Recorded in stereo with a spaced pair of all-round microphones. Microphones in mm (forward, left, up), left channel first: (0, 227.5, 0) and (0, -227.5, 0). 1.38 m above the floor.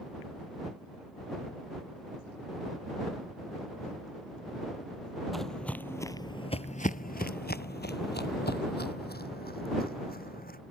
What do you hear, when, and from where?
5.3 s footsteps: centre (ahead or behind); by 10.6 s 20° left (ahead or behind)